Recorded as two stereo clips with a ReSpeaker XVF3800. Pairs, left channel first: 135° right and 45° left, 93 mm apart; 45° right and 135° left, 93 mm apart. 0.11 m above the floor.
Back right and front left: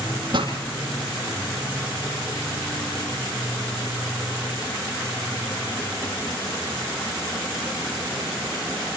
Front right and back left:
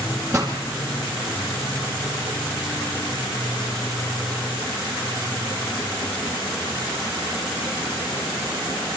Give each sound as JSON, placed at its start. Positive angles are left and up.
{"t": 0.3, "sound": "a pop", "azimuth_deg": 75, "distance_m": 4.5}